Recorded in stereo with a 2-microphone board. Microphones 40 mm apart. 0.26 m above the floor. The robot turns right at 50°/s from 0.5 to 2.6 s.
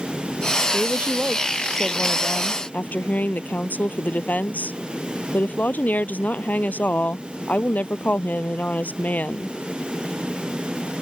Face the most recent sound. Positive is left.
turn(degrees=40)